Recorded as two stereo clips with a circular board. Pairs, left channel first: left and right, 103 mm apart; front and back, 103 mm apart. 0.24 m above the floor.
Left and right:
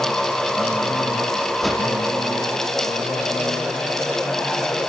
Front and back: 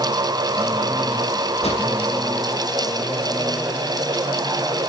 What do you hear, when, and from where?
1.6 s a whoosh: straight ahead, 3 m